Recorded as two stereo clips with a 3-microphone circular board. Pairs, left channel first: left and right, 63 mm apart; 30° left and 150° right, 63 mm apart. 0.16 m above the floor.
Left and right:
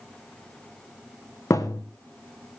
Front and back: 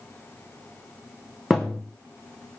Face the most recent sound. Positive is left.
turn(degrees=115)